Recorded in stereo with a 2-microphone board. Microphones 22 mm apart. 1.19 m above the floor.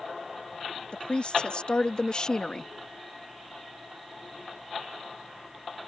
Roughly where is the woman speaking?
Left.